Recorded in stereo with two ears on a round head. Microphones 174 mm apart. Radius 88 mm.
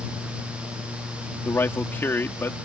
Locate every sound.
1.4 s a man speaking: 10° left (ahead or behind)